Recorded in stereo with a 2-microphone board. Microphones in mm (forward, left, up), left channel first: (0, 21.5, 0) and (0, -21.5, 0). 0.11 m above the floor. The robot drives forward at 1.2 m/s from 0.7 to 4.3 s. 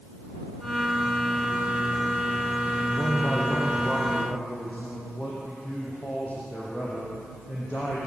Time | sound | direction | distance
2.8 | a man speaking | 50° left (ahead or behind) | 4 m